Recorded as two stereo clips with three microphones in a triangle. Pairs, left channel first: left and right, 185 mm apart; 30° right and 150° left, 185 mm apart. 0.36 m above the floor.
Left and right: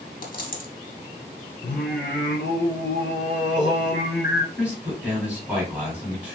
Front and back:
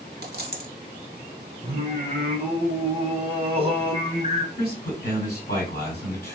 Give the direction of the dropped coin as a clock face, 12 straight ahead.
8 o'clock.